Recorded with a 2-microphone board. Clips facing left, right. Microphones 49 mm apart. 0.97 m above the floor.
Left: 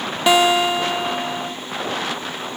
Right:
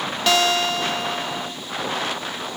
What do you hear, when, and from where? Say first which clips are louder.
0.3 s a guitar: left 4 dB; 15° left (ahead or behind)